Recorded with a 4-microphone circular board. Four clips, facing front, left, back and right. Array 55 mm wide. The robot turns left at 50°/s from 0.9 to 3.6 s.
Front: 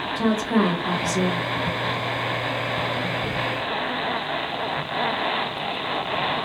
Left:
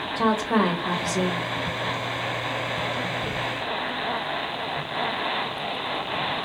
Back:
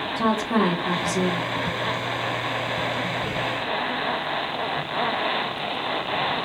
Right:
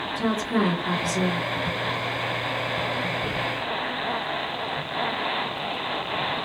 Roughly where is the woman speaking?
Left.